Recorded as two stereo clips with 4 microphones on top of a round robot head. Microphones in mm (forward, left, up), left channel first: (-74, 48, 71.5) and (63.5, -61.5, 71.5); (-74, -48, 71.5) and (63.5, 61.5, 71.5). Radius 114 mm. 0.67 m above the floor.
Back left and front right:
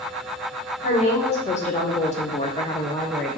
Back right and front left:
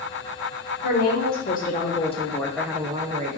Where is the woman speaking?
165° right, 1.5 m; by 3.4 s 50° left, 0.8 m.